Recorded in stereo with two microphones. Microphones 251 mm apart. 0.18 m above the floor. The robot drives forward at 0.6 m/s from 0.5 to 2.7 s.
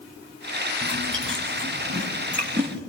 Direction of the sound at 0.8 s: 50° right (ahead or behind).